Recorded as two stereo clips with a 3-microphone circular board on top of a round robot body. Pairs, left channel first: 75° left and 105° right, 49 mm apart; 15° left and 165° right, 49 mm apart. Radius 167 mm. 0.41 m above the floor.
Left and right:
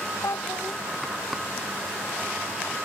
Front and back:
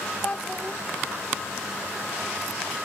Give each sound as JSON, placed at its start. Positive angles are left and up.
{"t": 0.2, "sound": "a child speaking", "azimuth_deg": 80}